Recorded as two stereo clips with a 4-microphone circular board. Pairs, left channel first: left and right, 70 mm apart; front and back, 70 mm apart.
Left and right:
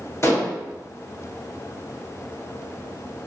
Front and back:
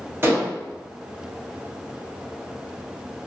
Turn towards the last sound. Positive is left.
turn(degrees=130)